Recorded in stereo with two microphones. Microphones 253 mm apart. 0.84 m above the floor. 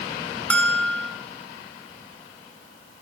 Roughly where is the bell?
Centre.